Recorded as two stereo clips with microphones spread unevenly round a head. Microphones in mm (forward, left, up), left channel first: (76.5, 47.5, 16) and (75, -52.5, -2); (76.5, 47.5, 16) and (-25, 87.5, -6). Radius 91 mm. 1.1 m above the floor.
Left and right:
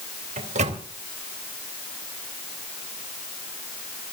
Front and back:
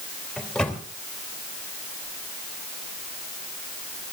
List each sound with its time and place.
0.4 s a microwave: 105° right, 2.5 m